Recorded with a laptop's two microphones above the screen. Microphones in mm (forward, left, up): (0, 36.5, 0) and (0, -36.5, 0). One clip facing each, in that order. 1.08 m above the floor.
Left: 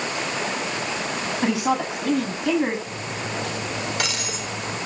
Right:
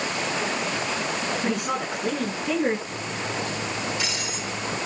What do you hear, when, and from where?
1.4 s a woman speaking: 85° left, 6.5 m
2.9 s cutlery clinking: 65° left (ahead or behind), 4 m